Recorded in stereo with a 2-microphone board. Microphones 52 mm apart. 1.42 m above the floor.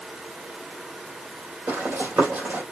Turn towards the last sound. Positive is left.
turn(degrees=-45)  # may be behind; listen again after turning